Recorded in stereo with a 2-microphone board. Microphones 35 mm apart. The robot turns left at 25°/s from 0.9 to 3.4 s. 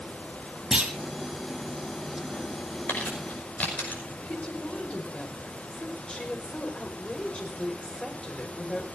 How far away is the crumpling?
About 5.5 m.